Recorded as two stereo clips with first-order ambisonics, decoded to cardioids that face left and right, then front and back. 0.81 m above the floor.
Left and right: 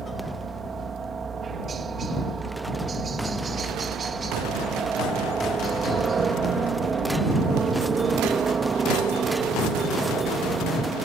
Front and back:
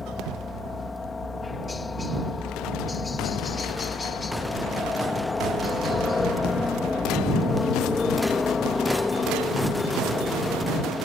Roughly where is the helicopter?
Ahead right.